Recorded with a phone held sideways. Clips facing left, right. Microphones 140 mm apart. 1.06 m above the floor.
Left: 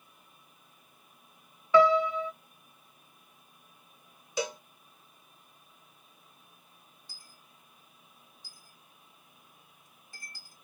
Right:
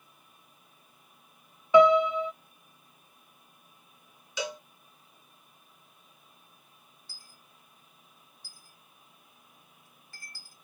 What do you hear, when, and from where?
1.7 s a piano: 20° right (ahead or behind), 0.5 m
4.4 s a cowbell: 45° left (ahead or behind), 1.4 m
7.1 s a dropped coin: 15° left (ahead or behind), 1.0 m